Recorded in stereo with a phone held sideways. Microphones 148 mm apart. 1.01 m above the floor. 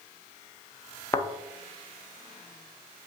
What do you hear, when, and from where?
1.1 s a thud: 25° left (ahead or behind), 0.5 m